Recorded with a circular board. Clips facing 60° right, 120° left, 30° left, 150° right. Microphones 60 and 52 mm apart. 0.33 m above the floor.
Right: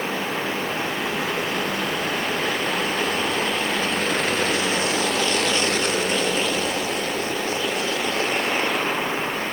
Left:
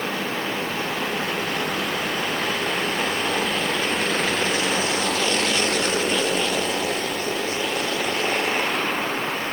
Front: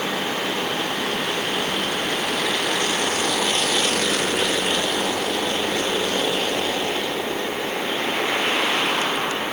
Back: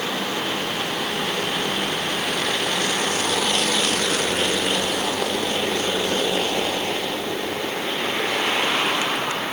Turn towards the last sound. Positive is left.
No sound to turn to.